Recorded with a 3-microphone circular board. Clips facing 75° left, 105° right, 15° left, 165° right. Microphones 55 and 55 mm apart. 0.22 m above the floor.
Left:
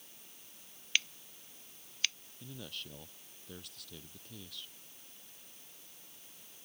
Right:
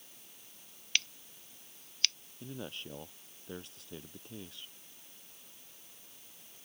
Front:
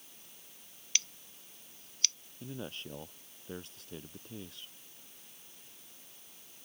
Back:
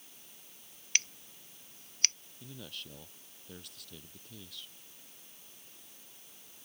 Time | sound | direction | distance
0.9 | scissors | 155° left | ?
2.4 | a man speaking | 45° right | ?